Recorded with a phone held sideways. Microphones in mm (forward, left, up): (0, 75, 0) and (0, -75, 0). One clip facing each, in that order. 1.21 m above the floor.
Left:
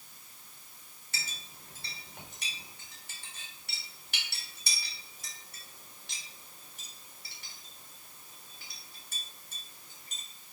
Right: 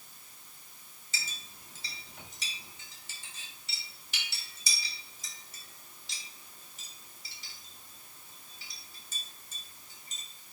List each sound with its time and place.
1.1 s a clink: 65° left (ahead or behind), 3.5 m